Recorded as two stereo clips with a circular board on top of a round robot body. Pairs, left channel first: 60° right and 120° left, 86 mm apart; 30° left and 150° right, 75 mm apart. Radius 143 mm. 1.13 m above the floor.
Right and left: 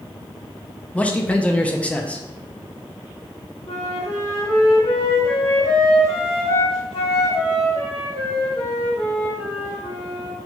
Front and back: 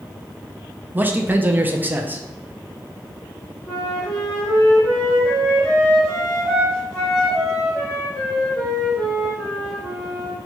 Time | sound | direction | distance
0.9 | a man speaking | 120° right | 0.6 m
3.7 | a flute | 55° right | 1.4 m